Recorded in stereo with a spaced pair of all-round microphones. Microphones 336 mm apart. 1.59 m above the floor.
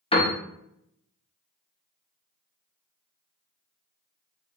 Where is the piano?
15° left (ahead or behind), 0.6 m.